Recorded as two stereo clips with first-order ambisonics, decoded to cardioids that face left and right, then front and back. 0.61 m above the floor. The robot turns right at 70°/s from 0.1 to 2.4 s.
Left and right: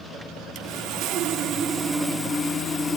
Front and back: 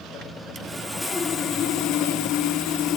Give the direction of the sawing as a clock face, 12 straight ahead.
4 o'clock.